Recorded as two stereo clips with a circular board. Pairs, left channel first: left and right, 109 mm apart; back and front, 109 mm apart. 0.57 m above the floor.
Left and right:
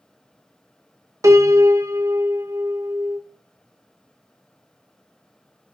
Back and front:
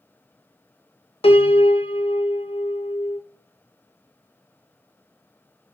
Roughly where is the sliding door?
No sliding door in this recording.